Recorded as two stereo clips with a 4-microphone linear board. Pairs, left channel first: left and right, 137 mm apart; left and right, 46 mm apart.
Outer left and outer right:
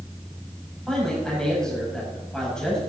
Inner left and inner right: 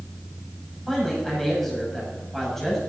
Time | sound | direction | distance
0.9 | a man speaking | 5° left (ahead or behind) | 6 m